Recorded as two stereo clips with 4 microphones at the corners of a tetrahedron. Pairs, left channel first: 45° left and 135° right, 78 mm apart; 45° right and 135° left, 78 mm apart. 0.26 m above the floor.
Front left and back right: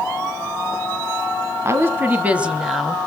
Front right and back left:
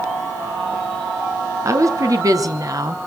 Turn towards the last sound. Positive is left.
turn(degrees=130)